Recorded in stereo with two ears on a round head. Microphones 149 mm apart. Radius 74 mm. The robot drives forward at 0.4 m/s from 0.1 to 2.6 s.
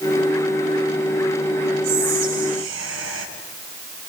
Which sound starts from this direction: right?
Whispering, at 1.8 s.